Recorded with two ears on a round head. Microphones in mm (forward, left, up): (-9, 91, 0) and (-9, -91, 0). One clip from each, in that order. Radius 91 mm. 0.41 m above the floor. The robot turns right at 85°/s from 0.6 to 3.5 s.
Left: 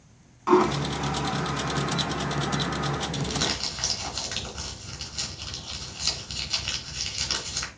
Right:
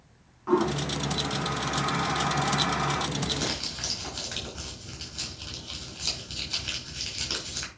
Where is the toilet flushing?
75° left (ahead or behind), 0.9 m; by 3.1 s 45° right (ahead or behind), 0.9 m.